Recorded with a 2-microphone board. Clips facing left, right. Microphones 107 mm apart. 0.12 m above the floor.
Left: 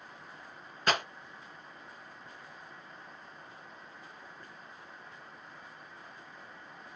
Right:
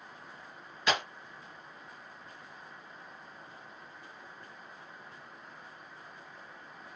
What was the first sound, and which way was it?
A clap, 50° left (ahead or behind).